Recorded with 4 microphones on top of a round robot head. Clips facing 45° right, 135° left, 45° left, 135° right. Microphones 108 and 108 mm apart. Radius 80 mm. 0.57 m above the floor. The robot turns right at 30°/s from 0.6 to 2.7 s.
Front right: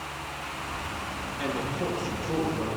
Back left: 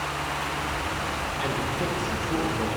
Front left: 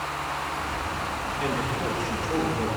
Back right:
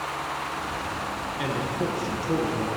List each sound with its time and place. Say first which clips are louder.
1.4 s a man speaking: even, back right 1 dB; 135° right, 10 m; by 2.7 s 100° right, 10 m